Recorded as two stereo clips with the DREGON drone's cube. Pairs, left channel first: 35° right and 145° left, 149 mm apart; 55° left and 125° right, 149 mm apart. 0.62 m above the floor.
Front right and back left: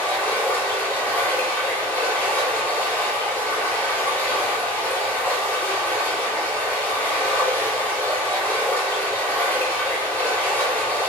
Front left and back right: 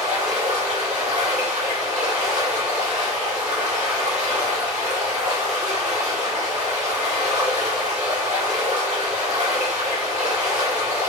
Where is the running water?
110° right, 1.4 m.